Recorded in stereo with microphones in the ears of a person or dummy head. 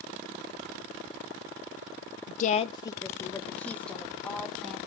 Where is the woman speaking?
60° left (ahead or behind), 0.5 m; by 4.8 s 5° left (ahead or behind), 2.5 m.